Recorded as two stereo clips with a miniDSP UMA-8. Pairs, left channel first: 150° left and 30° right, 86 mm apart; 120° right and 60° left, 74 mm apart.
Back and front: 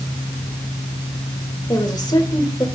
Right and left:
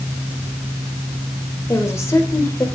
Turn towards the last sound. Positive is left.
turn(degrees=-170)